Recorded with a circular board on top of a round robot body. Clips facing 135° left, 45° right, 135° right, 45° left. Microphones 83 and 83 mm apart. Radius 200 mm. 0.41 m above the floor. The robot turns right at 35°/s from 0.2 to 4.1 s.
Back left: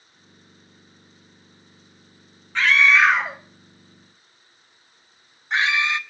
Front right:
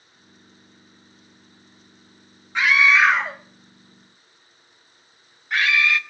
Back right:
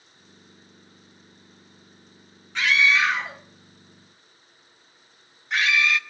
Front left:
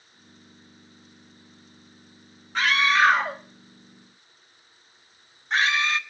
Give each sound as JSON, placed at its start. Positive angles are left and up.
{"t": 2.5, "sound": "a scream", "azimuth_deg": 25, "distance_m": 1.1}